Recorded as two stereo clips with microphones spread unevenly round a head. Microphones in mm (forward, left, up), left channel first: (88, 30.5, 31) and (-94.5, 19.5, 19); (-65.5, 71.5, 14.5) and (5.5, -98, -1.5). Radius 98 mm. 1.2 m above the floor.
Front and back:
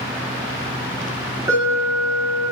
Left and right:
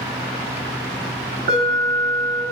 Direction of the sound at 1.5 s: 105° right.